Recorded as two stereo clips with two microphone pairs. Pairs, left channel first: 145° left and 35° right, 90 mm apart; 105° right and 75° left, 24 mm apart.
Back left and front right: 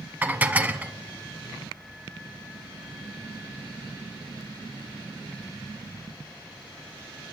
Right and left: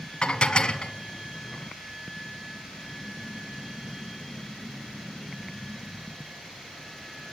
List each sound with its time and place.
0.2 s dishes clattering: 100° right, 1.1 m